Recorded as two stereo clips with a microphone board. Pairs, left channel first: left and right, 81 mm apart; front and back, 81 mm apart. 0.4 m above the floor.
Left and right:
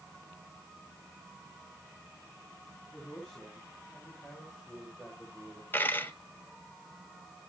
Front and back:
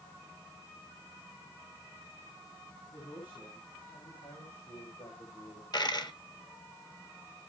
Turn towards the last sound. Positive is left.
turn(degrees=25)